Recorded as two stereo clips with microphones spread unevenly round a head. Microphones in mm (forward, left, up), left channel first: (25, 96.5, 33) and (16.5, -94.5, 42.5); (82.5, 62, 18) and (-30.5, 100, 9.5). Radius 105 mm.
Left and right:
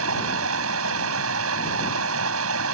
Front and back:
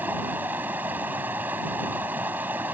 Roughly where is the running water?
Behind right.